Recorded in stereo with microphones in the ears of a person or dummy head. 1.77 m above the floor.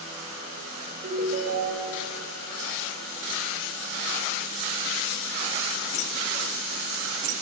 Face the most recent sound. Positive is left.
turn(degrees=-40)  # may be behind; listen again after turning